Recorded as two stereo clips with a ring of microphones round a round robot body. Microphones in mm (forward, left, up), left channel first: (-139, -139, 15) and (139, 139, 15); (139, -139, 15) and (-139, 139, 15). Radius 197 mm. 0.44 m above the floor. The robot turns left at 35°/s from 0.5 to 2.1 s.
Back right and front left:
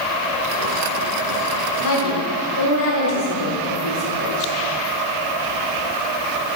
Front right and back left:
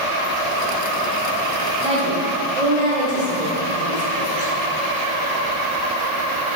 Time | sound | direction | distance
1.8 | a woman speaking | 155° right | 1.6 m